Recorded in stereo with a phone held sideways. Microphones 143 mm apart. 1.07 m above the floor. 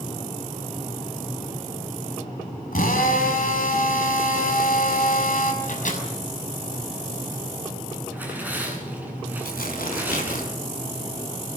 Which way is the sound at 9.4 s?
85° left.